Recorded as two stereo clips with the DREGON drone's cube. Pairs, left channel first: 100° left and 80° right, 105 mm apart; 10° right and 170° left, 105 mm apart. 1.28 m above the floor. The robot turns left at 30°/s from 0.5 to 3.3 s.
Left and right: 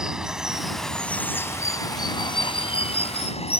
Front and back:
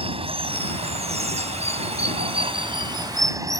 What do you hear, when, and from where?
0.0 s running water: 165° right; by 3.6 s 115° left